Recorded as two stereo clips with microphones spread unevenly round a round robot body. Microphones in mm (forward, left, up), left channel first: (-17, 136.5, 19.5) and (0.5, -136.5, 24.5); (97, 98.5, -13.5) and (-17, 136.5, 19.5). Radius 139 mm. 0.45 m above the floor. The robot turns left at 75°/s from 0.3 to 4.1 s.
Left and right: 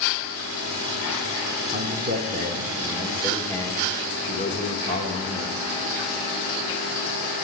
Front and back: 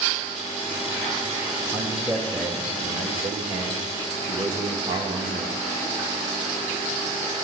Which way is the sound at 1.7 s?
55° right.